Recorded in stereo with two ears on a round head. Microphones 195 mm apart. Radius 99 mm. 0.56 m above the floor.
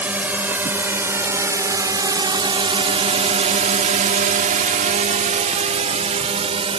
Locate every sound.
0.0 s a drone: 10° right (ahead or behind); by 6.8 s 25° right (ahead or behind)